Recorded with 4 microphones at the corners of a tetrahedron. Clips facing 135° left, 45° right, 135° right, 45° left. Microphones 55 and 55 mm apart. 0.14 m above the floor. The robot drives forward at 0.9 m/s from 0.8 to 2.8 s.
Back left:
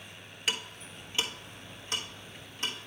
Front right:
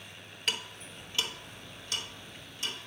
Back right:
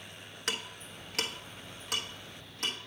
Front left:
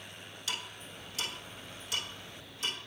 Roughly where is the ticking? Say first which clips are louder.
Back left 1 dB, back right 3 dB; behind right.